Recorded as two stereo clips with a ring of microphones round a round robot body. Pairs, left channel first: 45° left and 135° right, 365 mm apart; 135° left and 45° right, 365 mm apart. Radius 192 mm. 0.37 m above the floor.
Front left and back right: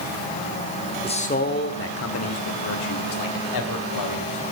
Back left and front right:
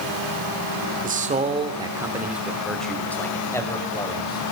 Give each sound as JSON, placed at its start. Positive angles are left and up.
{"t": 1.0, "sound": "a man speaking", "azimuth_deg": -10, "distance_m": 1.4}